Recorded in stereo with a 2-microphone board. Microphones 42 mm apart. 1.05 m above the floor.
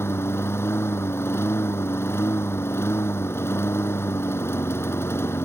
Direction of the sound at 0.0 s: 85° left.